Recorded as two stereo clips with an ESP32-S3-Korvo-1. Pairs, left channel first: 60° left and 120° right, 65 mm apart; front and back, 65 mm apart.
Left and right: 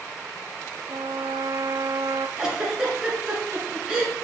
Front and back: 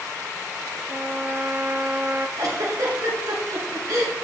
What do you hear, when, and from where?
0.9 s a trumpet: 115° right, 0.7 m
2.4 s a giggle: 160° left, 2 m